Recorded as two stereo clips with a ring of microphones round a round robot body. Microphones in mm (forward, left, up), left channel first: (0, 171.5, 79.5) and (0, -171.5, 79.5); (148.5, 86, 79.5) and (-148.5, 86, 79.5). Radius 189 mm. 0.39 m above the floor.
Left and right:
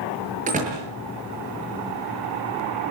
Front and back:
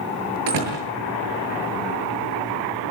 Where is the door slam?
160° right, 7.5 m.